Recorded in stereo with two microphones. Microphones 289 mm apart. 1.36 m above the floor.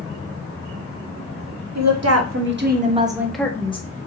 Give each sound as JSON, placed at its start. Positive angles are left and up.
{"t": 1.8, "sound": "a woman speaking", "side_deg": -65, "distance_m": 0.9}